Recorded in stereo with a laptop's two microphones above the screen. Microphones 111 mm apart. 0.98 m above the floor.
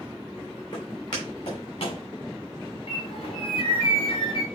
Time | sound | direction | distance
0.7 | footsteps | 40° left (ahead or behind) | 3.5 m
2.9 | a bird | 50° left (ahead or behind) | 3.5 m